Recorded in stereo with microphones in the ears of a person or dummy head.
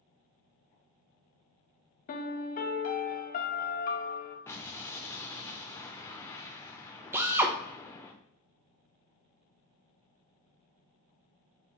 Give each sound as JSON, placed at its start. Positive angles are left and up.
{"t": 2.1, "sound": "a piano", "side_deg": 40, "distance_m": 0.5}
{"t": 4.5, "sound": "an explosion", "side_deg": 10, "distance_m": 0.6}
{"t": 7.1, "sound": "a drill", "side_deg": -10, "distance_m": 0.5}